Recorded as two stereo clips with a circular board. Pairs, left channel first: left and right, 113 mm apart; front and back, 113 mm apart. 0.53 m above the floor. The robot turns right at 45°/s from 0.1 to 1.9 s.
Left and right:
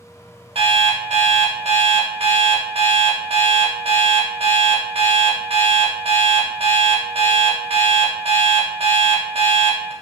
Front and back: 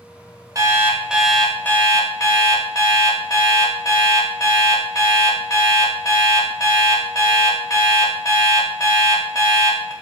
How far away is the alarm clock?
About 0.5 m.